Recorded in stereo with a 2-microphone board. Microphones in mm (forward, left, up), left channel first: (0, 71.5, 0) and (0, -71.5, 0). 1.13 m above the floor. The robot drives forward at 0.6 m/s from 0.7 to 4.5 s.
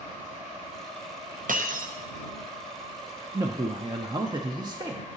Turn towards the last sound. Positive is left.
turn(degrees=-30)  # may be behind; listen again after turning